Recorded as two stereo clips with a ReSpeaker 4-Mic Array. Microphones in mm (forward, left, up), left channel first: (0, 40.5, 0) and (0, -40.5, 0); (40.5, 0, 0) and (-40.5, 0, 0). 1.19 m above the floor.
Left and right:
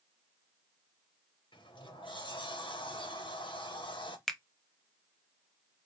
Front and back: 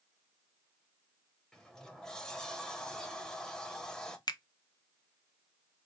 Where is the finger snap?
5° left, 0.6 m.